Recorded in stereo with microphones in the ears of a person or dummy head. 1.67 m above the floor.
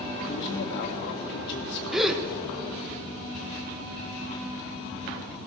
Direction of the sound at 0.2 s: 65° left (ahead or behind).